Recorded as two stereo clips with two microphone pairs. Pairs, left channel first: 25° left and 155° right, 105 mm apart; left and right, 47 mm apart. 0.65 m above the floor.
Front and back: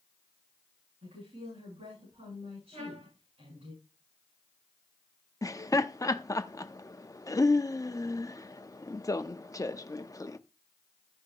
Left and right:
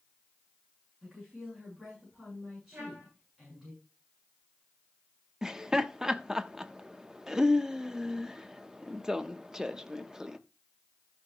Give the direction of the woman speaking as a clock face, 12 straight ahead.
5 o'clock.